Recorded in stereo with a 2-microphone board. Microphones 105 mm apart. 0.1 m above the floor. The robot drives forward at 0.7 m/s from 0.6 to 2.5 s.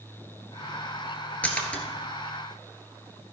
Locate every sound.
1.4 s a splash: 15° left (ahead or behind), 1.6 m; by 1.8 s 10° left (ahead or behind), 1.8 m